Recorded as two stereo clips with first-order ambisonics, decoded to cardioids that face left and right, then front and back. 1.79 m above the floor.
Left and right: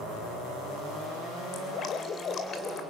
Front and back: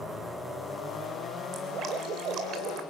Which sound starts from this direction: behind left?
Dripping, at 1.5 s.